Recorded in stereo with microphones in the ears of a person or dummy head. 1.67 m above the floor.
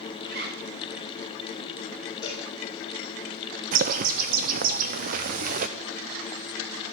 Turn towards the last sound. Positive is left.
turn(degrees=-40)  # may be behind; listen again after turning